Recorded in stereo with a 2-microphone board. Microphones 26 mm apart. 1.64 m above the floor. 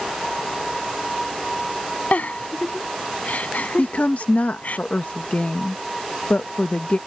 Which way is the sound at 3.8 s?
65° left (ahead or behind).